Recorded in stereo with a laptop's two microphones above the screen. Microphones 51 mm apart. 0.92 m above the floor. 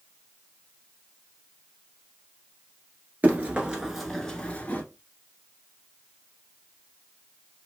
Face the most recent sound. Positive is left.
turn(degrees=30)  # may be behind; listen again after turning